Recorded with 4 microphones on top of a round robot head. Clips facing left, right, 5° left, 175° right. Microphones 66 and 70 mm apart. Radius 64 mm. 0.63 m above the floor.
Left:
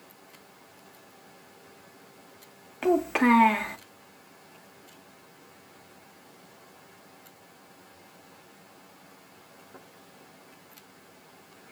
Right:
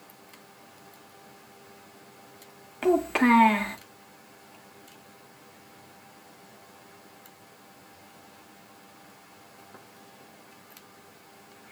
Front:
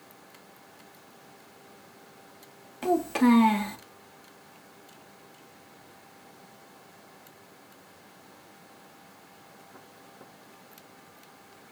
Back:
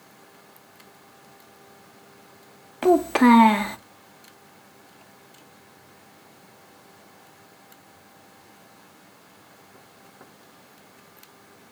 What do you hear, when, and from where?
2.8 s a child speaking: 175° left, 0.6 m